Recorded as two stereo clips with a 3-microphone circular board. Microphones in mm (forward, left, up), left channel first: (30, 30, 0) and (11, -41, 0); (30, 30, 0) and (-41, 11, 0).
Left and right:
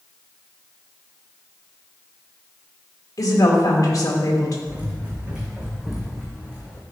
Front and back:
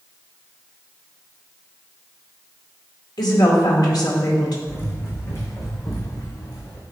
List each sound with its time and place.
3.2 s a woman speaking: 35° left, 2.0 m
4.7 s running footsteps: 45° right, 2.5 m; by 6.8 s 5° left, 2.5 m